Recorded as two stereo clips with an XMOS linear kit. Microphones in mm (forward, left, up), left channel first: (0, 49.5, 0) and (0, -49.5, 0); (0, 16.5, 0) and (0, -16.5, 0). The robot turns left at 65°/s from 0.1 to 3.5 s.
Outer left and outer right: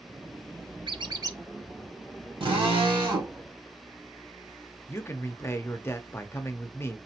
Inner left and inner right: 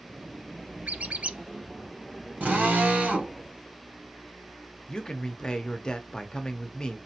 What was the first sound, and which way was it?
A squeak, 105° right.